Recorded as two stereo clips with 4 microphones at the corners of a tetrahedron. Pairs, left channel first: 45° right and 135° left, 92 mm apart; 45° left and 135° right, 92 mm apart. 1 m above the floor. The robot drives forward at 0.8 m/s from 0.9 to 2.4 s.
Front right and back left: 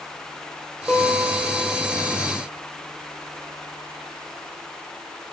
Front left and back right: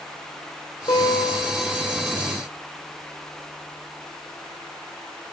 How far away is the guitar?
About 1.5 m.